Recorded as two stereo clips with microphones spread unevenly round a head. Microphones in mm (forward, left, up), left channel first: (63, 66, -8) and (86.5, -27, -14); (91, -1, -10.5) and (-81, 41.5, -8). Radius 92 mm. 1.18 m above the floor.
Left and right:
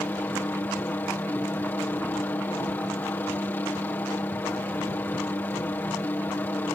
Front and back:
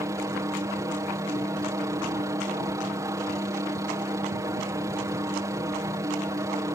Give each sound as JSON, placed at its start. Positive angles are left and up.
{"t": 0.0, "sound": "a helicopter", "azimuth_deg": 130}